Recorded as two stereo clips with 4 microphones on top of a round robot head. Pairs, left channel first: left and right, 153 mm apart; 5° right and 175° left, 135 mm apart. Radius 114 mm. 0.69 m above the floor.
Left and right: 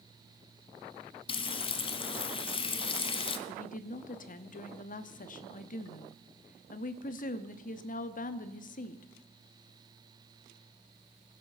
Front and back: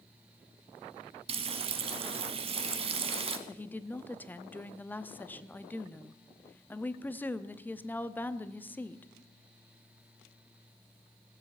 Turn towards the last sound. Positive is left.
turn(degrees=70)